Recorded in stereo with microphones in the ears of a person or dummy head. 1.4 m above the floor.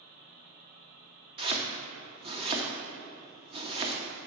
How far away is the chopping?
About 0.7 m.